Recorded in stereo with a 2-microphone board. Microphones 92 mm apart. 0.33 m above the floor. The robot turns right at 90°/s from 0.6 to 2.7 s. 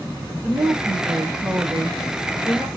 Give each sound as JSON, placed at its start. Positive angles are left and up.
{"t": 0.4, "sound": "a woman speaking", "side_deg": -20, "distance_m": 1.5}